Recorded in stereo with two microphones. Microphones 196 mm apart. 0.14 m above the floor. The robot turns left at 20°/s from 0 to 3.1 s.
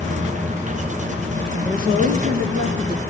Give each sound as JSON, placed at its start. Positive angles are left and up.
{"t": 1.6, "sound": "a woman speaking", "side_deg": -40, "distance_m": 2.0}